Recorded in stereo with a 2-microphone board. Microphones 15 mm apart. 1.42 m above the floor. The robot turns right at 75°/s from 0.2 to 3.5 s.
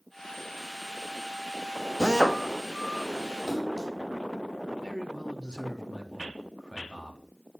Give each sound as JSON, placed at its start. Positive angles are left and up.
{"t": 2.0, "sound": "a drill", "azimuth_deg": -65, "distance_m": 2.5}
{"t": 3.5, "sound": "a splash", "side_deg": 35, "distance_m": 6.5}
{"t": 4.8, "sound": "a man speaking", "side_deg": 85, "distance_m": 3.5}